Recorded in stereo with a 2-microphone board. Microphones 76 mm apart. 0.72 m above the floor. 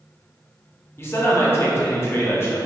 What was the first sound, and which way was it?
A man speaking, 35° left (ahead or behind).